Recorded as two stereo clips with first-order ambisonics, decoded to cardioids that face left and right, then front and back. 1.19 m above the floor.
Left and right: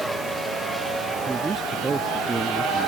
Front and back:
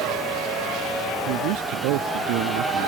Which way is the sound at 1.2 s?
165° right.